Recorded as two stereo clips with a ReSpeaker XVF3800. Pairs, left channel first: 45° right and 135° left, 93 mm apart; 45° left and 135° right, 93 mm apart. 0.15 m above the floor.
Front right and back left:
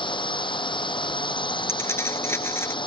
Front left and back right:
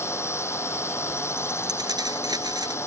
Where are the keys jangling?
100° right.